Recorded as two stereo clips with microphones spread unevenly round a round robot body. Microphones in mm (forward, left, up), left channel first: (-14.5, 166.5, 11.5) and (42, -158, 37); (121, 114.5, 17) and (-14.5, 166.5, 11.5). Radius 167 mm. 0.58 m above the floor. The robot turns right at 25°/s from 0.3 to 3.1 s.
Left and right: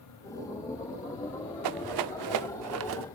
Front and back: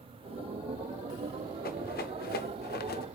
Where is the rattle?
60° right, 0.5 m; by 3.0 s 25° right, 0.5 m.